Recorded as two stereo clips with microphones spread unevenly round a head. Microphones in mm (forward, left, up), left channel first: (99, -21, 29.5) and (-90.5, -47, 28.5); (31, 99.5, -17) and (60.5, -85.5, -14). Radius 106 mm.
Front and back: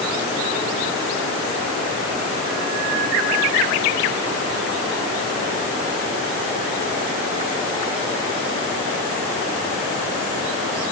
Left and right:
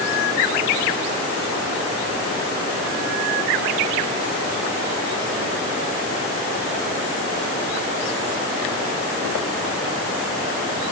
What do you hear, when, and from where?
Only background noise.